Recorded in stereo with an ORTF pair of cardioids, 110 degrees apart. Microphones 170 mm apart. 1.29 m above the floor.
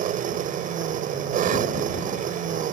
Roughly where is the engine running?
Ahead right.